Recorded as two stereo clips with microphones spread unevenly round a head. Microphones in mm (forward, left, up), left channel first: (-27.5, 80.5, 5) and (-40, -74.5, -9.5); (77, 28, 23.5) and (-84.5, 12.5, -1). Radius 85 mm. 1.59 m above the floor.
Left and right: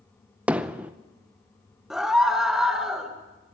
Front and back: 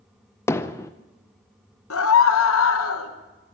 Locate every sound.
0.5 s hammering: 10° right, 0.6 m
1.9 s a scream: 5° right, 1.9 m